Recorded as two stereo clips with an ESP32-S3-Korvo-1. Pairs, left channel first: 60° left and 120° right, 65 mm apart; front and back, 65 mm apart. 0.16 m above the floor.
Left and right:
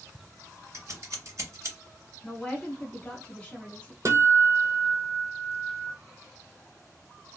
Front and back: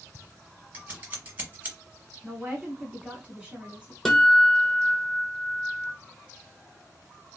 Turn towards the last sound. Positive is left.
turn(degrees=-85)